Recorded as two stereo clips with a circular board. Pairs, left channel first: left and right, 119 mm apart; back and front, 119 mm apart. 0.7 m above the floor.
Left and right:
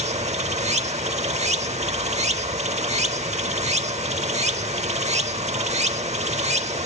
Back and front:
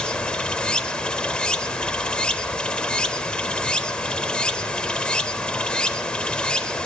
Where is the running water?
100° right, 0.7 m.